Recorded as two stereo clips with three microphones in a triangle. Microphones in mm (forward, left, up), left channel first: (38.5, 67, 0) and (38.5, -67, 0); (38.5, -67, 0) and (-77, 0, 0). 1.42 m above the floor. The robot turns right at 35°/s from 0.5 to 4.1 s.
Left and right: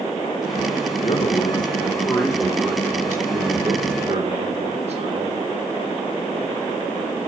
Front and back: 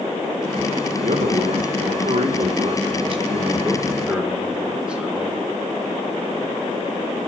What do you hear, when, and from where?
1.0 s a man speaking: 125° left, 2 m; by 5.5 s 130° right, 2 m